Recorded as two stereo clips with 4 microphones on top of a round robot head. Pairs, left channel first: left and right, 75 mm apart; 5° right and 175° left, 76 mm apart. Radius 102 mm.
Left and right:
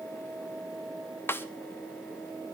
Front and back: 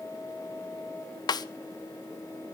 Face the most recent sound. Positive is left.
turn(degrees=25)